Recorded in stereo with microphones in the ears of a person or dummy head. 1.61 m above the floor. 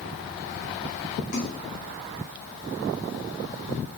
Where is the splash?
45° left (ahead or behind), 1.2 m.